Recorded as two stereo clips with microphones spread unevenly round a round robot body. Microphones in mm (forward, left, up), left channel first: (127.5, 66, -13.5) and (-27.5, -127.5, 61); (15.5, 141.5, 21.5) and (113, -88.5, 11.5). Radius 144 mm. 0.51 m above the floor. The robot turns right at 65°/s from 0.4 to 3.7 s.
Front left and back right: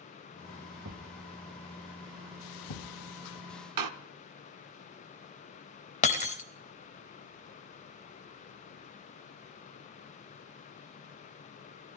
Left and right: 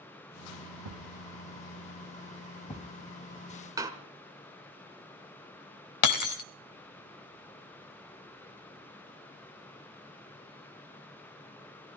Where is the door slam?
145° right, 1.0 m.